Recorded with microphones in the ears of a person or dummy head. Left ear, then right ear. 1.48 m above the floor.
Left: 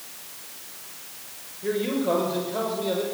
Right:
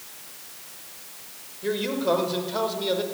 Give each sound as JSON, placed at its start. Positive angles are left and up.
{"t": 1.6, "sound": "a man speaking", "side_deg": -35, "distance_m": 5.5}